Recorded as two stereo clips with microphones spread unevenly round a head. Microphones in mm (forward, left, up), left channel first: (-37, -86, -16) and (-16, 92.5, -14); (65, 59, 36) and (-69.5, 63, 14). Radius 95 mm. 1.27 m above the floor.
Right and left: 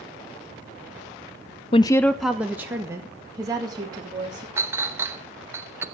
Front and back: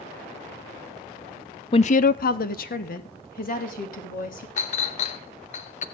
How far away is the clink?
About 0.7 m.